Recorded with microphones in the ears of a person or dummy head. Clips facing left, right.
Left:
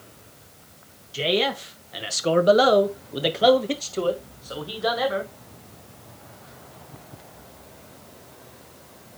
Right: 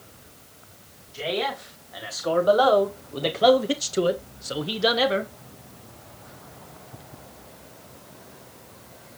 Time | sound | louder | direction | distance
1.1 | a man speaking | left 4 dB | 40° left (ahead or behind) | 1.4 m